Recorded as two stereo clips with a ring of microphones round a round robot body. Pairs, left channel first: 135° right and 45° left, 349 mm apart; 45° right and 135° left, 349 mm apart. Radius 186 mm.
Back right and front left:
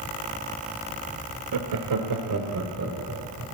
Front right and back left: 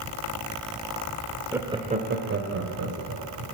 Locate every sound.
1.5 s laughter: 50° left, 1.6 m; by 3.4 s 95° left, 3 m